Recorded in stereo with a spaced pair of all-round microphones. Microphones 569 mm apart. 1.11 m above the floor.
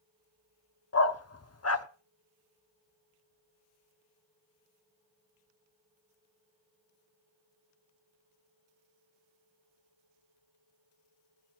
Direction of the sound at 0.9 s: 25° left (ahead or behind).